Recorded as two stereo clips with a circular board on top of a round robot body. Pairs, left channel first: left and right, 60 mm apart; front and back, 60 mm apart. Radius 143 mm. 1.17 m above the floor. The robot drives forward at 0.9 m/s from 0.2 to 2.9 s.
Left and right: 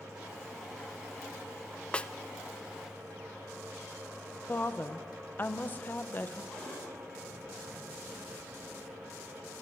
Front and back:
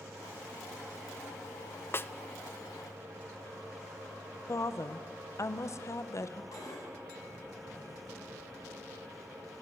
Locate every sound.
1.9 s a snare drum: 25° left, 0.8 m; by 2.1 s 30° left, 0.7 m
4.5 s a woman speaking: 30° left, 1.0 m
6.5 s a cupboard door: 10° left, 5.5 m